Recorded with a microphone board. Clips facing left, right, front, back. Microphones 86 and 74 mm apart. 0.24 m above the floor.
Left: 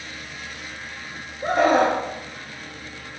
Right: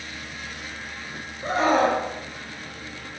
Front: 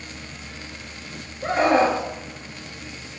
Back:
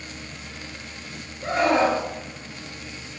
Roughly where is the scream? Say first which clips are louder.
Left 2 dB, front 2 dB; ahead left.